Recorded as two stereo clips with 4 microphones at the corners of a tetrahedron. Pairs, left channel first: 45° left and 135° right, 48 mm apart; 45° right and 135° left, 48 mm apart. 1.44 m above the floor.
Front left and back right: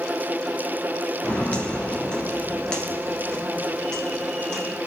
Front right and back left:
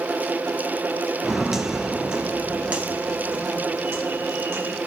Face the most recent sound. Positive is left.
turn(degrees=125)